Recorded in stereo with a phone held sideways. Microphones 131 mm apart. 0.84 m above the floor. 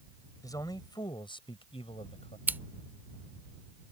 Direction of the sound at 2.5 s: 15° right (ahead or behind).